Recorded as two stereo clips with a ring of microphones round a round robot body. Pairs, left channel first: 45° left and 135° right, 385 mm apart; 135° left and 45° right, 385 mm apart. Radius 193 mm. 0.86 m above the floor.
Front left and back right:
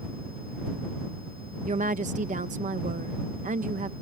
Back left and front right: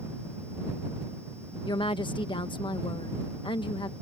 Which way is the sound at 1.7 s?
170° right.